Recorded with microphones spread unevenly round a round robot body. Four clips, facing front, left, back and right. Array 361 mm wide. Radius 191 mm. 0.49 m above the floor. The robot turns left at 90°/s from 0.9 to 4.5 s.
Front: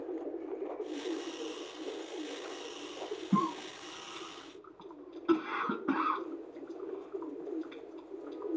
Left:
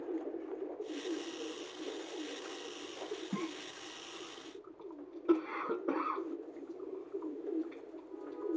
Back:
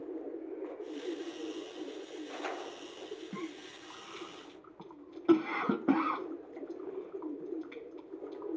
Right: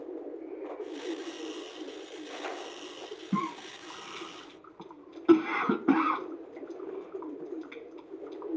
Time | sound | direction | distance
3.3 | a cough | 25° right | ?